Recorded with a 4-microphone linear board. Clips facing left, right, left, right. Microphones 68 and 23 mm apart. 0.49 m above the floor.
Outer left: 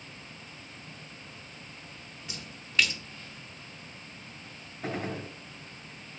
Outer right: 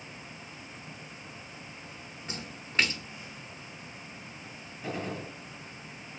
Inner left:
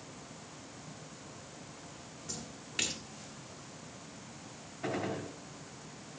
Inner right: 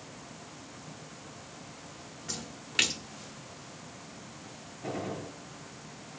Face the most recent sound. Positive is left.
turn(degrees=55)  # may be behind; listen again after turning